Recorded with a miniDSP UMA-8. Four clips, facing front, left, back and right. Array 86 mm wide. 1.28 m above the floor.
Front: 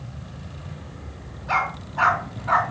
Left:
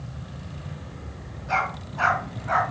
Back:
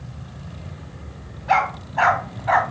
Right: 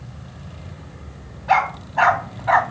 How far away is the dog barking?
About 2 m.